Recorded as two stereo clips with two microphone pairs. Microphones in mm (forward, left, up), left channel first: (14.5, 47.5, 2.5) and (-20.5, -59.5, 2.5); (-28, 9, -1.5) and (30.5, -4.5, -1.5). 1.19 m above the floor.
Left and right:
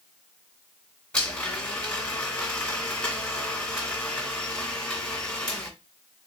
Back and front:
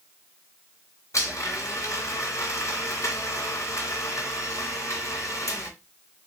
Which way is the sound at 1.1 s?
150° left.